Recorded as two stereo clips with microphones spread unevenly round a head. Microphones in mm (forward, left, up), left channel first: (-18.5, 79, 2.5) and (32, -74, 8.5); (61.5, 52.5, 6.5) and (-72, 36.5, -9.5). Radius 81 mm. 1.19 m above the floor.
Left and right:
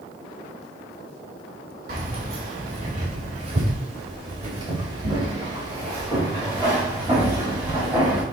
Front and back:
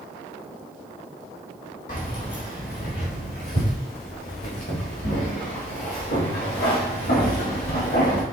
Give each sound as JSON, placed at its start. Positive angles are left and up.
{"t": 1.9, "sound": "keys jangling", "azimuth_deg": -35, "distance_m": 3.0}